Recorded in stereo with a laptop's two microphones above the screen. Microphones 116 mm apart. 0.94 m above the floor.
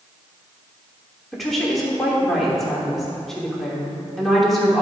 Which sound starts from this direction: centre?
A woman speaking, at 1.3 s.